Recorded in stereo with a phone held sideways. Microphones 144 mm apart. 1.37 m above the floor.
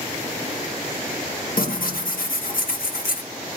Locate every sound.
1.6 s tearing paper: 80° left, 1.3 m